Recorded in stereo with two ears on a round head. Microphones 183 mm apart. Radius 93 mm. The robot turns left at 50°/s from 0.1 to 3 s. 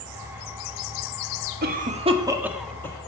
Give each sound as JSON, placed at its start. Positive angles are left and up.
{"t": 1.6, "sound": "a cough", "side_deg": -50, "distance_m": 1.4}